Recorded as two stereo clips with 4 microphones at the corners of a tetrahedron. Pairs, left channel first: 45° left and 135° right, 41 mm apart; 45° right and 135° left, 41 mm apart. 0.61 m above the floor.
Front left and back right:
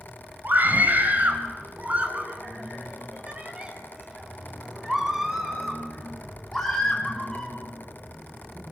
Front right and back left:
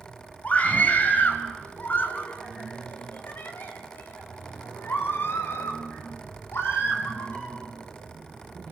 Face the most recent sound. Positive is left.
turn(degrees=-30)